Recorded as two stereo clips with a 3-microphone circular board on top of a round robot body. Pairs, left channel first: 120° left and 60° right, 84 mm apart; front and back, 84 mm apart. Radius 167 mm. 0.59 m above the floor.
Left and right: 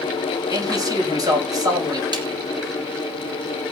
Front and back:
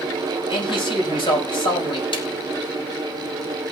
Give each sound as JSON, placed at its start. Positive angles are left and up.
{"t": 0.5, "sound": "a man speaking", "azimuth_deg": -15, "distance_m": 5.5}
{"t": 2.1, "sound": "a snare drum", "azimuth_deg": -25, "distance_m": 2.0}